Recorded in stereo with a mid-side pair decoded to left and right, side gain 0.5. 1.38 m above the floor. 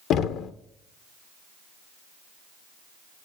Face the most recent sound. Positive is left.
turn(degrees=70)